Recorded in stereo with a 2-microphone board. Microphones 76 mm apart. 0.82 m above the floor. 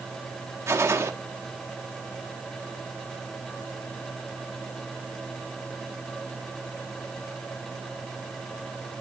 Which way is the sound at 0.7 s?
40° right (ahead or behind).